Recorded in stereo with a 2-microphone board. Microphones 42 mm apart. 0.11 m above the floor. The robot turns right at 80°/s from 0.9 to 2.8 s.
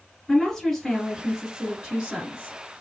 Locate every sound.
0.3 s a woman speaking: 10° left (ahead or behind), 1.5 m; by 2.5 s 20° right (ahead or behind), 1.5 m